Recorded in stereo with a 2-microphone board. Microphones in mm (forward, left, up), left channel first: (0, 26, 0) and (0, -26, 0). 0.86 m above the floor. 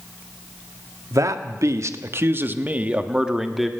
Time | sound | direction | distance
1.1 | a man speaking | 75° right (ahead or behind) | 1.4 m